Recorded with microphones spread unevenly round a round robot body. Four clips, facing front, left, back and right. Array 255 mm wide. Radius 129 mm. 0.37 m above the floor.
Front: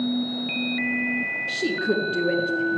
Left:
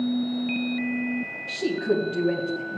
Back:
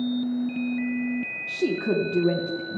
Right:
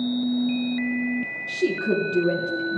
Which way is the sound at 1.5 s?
170° right.